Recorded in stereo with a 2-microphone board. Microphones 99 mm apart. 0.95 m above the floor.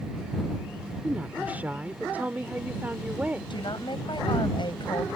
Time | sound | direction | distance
1.0 | a woman speaking | 15° right (ahead or behind) | ?
3.5 | a woman speaking | 55° left (ahead or behind) | ?